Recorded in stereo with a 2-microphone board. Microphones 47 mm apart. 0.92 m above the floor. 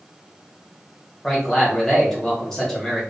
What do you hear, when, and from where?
1.2 s a man speaking: 5° left (ahead or behind), 1.3 m